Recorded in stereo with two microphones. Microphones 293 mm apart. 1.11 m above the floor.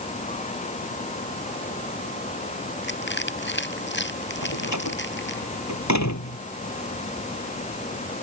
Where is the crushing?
40° left (ahead or behind).